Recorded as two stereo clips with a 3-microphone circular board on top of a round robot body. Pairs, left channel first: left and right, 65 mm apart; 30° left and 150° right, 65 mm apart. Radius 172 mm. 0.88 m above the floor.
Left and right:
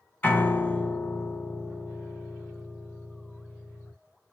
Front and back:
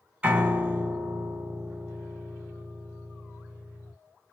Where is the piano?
145° left, 1.3 m.